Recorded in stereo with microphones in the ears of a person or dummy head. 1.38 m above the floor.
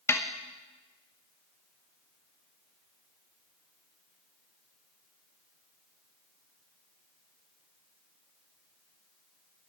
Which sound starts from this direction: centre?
A snare drum, at 0.1 s.